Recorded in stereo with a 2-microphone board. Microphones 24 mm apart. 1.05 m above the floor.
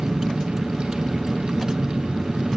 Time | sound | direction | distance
0.0 | a vehicle | 35° right (ahead or behind) | ?